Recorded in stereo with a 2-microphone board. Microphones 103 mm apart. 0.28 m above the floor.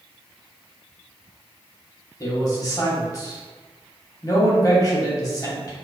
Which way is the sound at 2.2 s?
35° left (ahead or behind).